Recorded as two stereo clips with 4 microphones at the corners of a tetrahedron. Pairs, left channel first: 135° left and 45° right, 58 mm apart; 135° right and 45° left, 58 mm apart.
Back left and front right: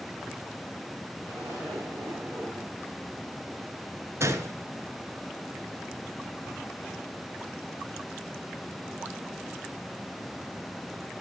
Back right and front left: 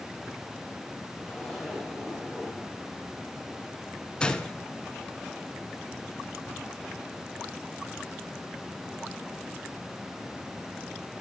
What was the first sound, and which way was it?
A zipper, 50° right.